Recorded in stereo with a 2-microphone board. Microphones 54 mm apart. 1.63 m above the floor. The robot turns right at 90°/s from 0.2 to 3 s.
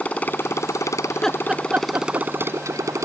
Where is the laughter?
25° left (ahead or behind); by 2.3 s 75° right (ahead or behind).